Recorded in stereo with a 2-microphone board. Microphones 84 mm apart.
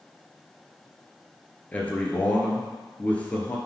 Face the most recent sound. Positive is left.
turn(degrees=15)  # may be behind; listen again after turning